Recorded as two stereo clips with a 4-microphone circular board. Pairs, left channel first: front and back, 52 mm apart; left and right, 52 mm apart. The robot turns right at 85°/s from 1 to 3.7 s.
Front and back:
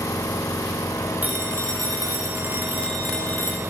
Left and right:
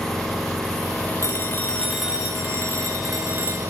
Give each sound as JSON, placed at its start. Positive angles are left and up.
{"t": 0.0, "sound": "an engine running", "azimuth_deg": 10, "distance_m": 10.0}
{"t": 1.2, "sound": "a phone ringing", "azimuth_deg": 115, "distance_m": 5.0}